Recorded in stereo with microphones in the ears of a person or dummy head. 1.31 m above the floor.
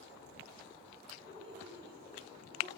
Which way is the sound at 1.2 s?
15° right (ahead or behind).